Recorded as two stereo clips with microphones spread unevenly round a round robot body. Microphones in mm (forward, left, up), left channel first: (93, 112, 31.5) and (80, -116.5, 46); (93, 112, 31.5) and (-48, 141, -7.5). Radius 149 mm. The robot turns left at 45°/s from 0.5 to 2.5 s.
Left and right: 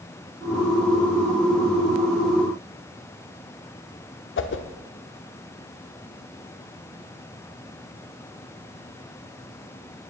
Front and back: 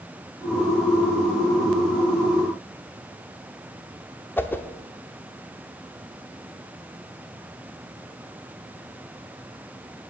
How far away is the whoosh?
About 0.9 m.